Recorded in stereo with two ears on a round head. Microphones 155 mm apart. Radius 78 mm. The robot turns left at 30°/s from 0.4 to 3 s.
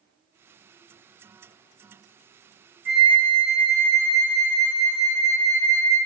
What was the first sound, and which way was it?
A flute, 10° right (ahead or behind).